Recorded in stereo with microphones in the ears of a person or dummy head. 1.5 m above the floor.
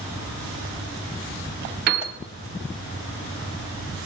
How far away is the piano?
About 1.5 m.